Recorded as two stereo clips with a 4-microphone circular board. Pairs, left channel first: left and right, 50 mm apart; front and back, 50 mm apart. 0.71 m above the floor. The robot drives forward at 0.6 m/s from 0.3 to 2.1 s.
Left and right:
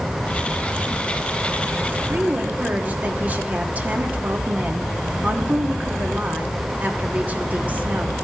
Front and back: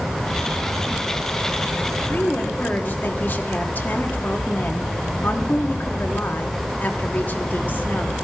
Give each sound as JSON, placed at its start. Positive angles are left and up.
{"t": 2.1, "sound": "a woman speaking", "azimuth_deg": -40, "distance_m": 1.4}